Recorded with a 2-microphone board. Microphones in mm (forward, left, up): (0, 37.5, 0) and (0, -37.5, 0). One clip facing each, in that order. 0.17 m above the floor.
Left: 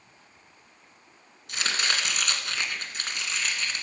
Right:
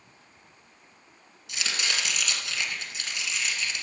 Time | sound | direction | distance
1.5 | chopping | 50° left (ahead or behind) | 1.8 m